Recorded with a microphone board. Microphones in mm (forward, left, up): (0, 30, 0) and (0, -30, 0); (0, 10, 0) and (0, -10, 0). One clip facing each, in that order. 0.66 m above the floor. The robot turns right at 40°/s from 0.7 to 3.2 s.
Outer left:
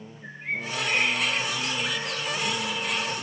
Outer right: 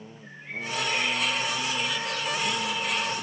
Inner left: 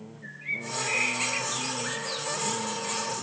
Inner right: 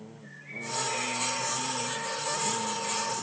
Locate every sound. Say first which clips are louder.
0.2 s a bird: outer left 4 dB, inner left 7 dB; 70° left, 1.5 m; by 2.3 s 135° left, 1.5 m